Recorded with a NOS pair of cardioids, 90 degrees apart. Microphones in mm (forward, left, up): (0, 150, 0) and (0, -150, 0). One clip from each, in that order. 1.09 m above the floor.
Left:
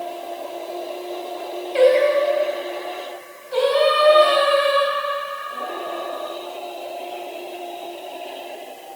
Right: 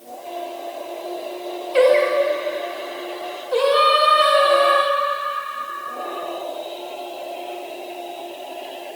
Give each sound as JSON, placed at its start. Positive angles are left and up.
{"t": 1.7, "sound": "singing", "azimuth_deg": -40, "distance_m": 2.0}